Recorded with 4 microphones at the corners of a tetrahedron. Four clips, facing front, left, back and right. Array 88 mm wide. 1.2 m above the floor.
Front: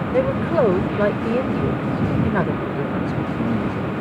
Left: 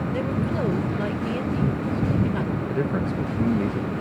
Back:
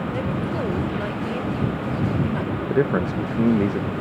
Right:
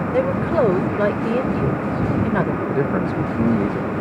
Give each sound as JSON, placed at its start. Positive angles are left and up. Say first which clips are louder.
{"t": 0.1, "sound": "a woman speaking", "louder": "right 9 dB, front 11 dB", "azimuth_deg": -45}
{"t": 2.7, "sound": "a man speaking", "louder": "right 5 dB, back 3 dB", "azimuth_deg": -150}